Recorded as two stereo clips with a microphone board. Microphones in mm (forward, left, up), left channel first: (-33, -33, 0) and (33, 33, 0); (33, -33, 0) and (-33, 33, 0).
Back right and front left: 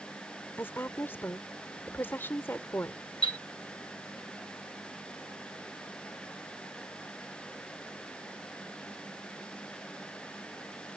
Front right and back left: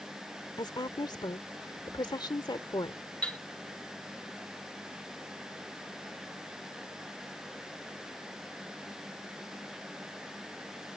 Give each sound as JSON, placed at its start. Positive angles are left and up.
{"t": 0.6, "sound": "a woman speaking", "azimuth_deg": -70}
{"t": 3.2, "sound": "a chime", "azimuth_deg": -120}